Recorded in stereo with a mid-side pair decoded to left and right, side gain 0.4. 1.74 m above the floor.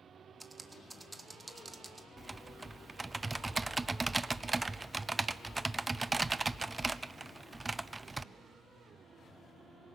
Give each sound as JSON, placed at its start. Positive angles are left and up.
{"t": 0.4, "sound": "typing on a keyboard", "azimuth_deg": -20, "distance_m": 1.5}
{"t": 2.2, "sound": "typing on a keyboard", "azimuth_deg": -20, "distance_m": 0.5}